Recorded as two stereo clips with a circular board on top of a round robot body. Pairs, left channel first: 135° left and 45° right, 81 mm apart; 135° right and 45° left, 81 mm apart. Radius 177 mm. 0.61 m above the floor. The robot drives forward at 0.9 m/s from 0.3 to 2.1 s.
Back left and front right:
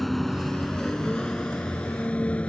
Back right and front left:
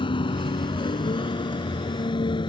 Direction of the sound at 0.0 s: 140° right.